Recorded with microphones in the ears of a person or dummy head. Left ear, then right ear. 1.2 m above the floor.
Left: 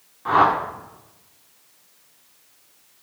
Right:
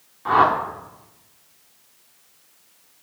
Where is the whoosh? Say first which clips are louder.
Even; 10° right (ahead or behind), 1.2 m.